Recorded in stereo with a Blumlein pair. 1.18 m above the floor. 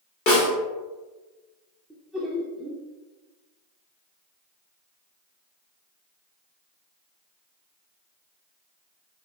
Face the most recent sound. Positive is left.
turn(degrees=-5)